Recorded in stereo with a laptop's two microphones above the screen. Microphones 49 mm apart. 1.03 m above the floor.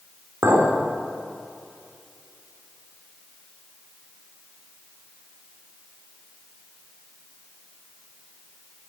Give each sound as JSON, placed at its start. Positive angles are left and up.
{"t": 0.4, "sound": "a clink", "side_deg": -65, "distance_m": 2.5}